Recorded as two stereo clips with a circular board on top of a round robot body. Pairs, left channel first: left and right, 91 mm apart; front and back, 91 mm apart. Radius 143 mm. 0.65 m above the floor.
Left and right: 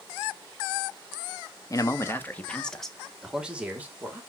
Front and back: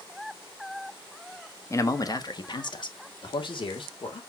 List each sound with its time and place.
1.7 s a man speaking: 50° left, 1.5 m; by 4.2 s 20° right, 2.5 m